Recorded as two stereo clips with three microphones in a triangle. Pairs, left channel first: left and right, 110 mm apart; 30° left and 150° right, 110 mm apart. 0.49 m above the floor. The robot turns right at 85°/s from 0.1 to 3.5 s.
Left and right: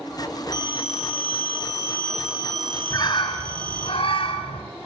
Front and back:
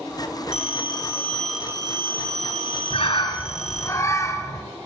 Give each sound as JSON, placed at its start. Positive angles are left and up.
{"t": 0.5, "sound": "a phone ringing", "azimuth_deg": 40, "distance_m": 3.0}
{"t": 2.9, "sound": "a bird", "azimuth_deg": 35, "distance_m": 1.8}